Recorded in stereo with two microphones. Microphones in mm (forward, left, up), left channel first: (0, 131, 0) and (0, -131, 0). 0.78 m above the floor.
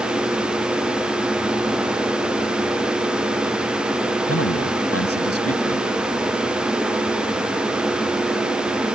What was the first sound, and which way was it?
A man speaking, 60° left (ahead or behind).